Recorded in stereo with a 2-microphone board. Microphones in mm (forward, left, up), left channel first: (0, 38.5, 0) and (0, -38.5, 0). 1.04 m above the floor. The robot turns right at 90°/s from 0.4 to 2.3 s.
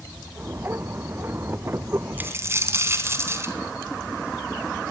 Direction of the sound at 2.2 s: 20° right (ahead or behind).